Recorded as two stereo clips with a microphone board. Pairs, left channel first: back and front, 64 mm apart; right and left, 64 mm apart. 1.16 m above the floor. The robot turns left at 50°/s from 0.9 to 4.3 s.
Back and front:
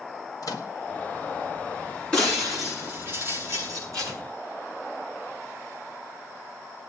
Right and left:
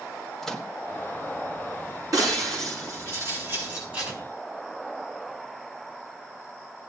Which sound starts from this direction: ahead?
Tape being pulled, at 3.9 s.